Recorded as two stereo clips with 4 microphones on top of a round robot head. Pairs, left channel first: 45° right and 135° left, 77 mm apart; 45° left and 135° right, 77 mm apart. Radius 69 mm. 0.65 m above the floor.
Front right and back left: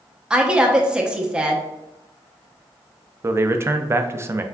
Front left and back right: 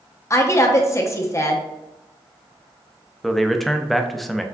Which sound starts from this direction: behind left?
A man speaking, at 3.2 s.